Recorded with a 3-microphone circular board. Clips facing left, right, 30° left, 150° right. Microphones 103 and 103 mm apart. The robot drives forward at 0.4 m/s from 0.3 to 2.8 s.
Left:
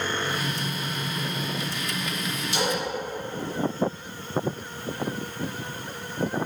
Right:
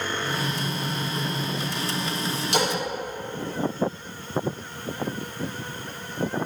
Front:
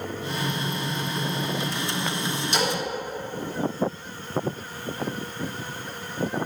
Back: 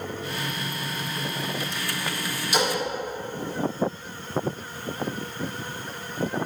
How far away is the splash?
About 3 m.